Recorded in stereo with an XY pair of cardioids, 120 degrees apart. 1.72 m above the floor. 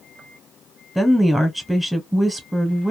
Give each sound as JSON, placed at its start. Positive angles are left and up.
{"t": 0.9, "sound": "a woman speaking", "azimuth_deg": 5, "distance_m": 0.8}